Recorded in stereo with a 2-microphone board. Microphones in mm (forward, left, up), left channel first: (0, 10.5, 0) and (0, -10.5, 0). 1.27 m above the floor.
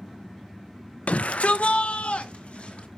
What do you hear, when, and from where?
1.1 s a shout: 75° left (ahead or behind), 0.5 m; by 2.9 s 65° left (ahead or behind), 2 m